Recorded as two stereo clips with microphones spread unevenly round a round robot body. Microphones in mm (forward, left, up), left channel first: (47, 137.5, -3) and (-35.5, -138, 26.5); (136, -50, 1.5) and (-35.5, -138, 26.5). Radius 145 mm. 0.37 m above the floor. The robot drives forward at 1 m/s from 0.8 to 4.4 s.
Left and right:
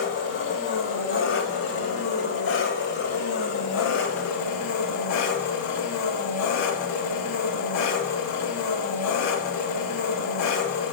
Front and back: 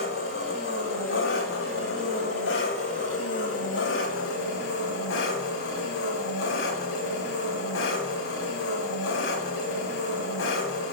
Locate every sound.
0.0 s an engine running: 25° left, 8.5 m; by 10.9 s 45° left, 5.5 m